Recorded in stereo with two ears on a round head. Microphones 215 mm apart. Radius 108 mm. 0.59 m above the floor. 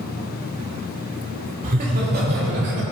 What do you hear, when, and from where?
1.6 s laughter: 35° right (ahead or behind), 1.6 m; by 2.8 s 50° right (ahead or behind), 2 m